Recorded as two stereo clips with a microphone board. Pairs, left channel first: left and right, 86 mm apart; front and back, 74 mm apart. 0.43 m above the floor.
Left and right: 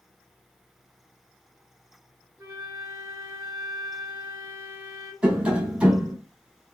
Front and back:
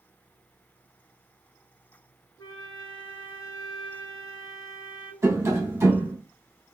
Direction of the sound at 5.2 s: 165° right.